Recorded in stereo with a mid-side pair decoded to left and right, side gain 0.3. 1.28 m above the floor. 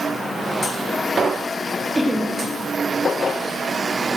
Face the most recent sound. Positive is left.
turn(degrees=-10)